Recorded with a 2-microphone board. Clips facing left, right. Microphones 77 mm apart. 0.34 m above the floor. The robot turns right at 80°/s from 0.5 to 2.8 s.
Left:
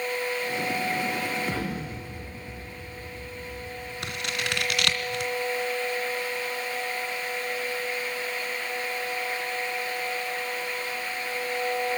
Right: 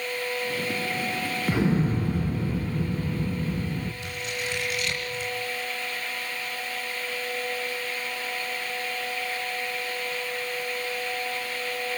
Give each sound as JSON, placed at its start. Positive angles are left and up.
{"t": 1.5, "sound": "an explosion", "azimuth_deg": -165, "distance_m": 1.9}
{"t": 4.0, "sound": "scissors", "side_deg": 70, "distance_m": 2.5}